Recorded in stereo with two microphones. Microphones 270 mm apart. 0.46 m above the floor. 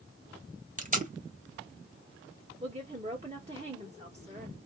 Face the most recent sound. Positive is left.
turn(degrees=-25)  # may be behind; listen again after turning